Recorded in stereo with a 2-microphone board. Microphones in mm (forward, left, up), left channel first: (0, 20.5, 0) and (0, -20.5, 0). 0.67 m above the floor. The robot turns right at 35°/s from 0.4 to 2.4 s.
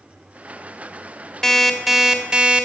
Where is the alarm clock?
165° left, 1.3 m; by 2.6 s 160° right, 1.3 m.